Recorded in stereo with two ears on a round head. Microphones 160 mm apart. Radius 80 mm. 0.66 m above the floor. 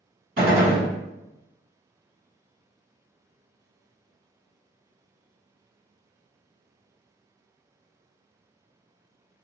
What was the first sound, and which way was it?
A gunshot, 50° right (ahead or behind).